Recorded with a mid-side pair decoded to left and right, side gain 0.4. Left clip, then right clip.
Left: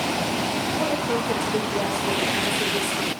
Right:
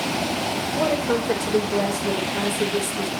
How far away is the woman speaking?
About 4.5 m.